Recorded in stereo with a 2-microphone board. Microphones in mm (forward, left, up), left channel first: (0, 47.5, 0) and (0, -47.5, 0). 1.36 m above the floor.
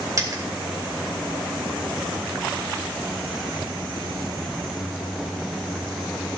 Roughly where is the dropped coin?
Right.